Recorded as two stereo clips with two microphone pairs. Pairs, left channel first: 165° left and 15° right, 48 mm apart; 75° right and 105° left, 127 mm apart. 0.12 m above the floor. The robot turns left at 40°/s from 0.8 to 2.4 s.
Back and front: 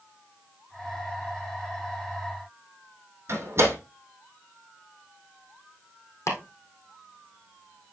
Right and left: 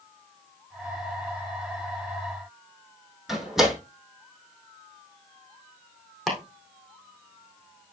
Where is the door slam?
15° left, 3.5 m.